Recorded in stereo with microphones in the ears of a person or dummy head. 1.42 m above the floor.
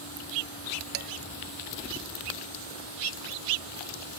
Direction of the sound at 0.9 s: 40° right (ahead or behind).